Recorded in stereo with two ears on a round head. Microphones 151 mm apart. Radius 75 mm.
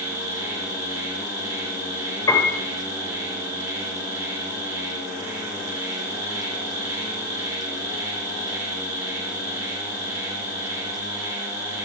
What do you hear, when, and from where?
0.0 s an insect: 20° right (ahead or behind), 7 m
2.3 s a piano: 20° left (ahead or behind), 4 m